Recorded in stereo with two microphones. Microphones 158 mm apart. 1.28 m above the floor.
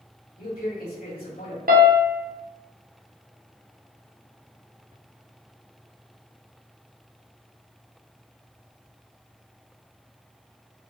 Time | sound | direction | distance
0.4 | a man speaking | 70° left (ahead or behind) | 1.3 m
1.7 | a piano | 70° right (ahead or behind) | 0.5 m